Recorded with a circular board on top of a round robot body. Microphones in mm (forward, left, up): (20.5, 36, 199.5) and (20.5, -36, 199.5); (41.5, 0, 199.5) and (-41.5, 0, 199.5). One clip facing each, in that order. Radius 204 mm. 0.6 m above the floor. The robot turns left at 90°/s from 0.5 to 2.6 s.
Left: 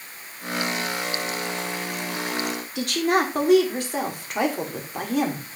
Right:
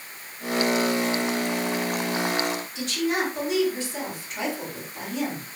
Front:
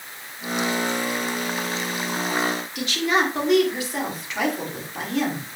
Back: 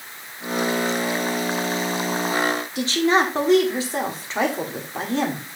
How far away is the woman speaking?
About 2 m.